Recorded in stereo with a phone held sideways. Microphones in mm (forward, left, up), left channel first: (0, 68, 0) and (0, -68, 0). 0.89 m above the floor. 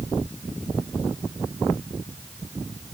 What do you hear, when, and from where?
Only background noise.